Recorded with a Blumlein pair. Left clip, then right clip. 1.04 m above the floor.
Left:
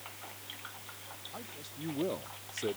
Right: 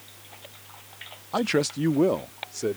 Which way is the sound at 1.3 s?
40° right.